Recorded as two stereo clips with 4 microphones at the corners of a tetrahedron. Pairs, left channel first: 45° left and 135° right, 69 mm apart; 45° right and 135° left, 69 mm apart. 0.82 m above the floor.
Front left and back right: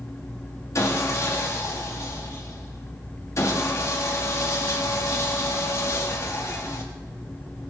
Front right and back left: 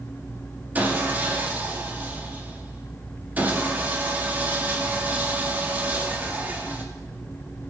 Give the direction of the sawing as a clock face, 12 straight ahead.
9 o'clock.